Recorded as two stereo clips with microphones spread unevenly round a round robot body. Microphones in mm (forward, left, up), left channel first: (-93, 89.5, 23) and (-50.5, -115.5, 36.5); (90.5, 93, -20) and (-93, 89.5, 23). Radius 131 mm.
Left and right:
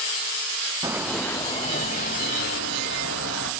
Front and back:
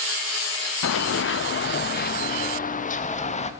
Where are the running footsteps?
Straight ahead, 1.1 m; by 3.5 s 55° left, 3 m.